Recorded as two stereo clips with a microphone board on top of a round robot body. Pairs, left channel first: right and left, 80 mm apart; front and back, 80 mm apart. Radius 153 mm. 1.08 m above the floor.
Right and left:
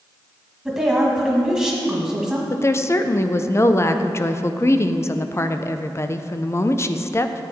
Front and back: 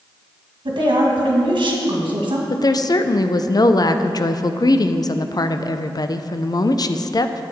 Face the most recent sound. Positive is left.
turn(degrees=-35)